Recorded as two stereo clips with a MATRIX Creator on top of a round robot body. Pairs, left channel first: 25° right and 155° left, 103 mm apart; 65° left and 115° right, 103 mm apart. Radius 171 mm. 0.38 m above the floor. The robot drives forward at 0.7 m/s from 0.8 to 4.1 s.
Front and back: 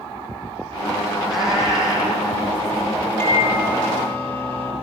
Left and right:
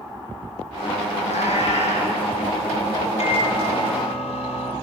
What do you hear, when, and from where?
1.2 s a cat meowing: 70° left, 9 m; by 2.2 s 75° left, 9 m
3.2 s a microwave: 45° left, 10 m; by 4.7 s 50° left, 9.5 m